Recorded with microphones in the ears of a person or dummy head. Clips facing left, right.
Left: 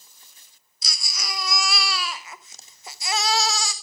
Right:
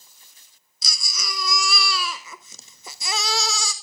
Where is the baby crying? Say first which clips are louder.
Even; 80° right, 0.6 m.